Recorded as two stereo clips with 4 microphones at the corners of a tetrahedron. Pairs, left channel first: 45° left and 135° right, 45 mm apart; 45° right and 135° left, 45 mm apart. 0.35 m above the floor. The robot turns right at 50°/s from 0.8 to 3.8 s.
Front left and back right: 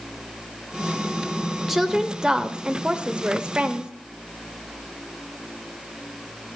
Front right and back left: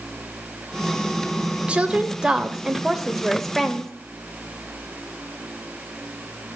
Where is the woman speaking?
150° left, 0.9 m; by 3.9 s 105° right, 0.9 m.